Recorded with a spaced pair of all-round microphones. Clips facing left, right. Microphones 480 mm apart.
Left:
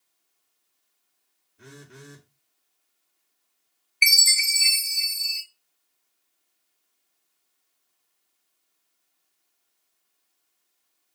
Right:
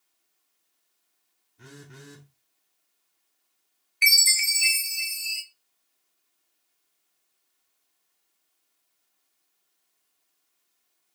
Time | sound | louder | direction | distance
1.6 | a phone buzzing | left 1 dB | 15° right (ahead or behind) | 2 m
4.0 | a chime | left 1 dB | 15° right (ahead or behind) | 1.0 m